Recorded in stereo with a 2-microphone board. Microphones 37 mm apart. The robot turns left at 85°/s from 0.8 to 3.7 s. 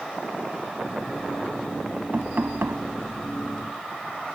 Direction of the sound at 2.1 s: 40° right.